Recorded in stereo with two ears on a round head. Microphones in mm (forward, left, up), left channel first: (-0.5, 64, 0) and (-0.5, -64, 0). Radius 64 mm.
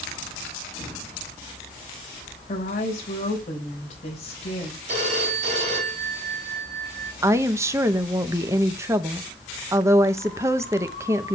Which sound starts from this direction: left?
A woman speaking, at 2.5 s.